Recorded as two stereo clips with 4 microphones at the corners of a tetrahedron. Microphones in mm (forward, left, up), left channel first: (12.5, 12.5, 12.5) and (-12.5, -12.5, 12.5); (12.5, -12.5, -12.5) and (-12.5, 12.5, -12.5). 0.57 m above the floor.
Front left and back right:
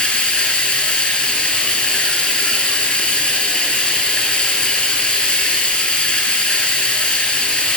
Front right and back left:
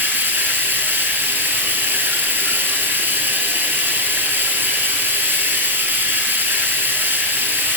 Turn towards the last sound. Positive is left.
turn(degrees=110)